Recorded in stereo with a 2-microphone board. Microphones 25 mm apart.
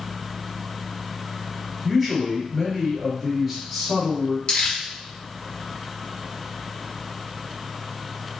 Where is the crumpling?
50° left (ahead or behind), 1.5 m.